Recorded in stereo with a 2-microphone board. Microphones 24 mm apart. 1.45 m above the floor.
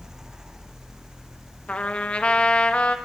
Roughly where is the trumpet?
Left.